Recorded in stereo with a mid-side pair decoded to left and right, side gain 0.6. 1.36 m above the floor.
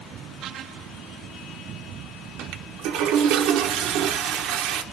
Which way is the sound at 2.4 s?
65° right.